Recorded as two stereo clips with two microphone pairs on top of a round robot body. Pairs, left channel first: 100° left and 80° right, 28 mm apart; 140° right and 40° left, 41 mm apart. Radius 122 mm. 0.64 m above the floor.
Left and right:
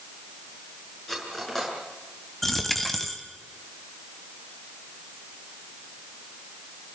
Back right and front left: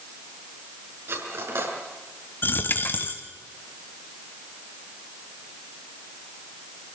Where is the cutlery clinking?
25° left, 6 m.